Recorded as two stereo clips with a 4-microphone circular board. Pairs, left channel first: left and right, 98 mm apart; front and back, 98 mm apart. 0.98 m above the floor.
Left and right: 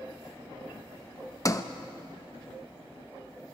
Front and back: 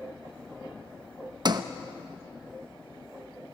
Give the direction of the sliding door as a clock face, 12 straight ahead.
7 o'clock.